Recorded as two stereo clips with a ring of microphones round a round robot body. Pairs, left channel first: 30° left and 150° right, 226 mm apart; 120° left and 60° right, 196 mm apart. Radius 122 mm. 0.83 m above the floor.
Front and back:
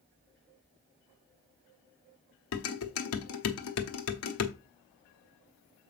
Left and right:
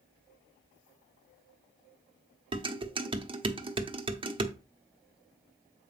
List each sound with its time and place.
2.5 s dishes clattering: 5° left, 1.2 m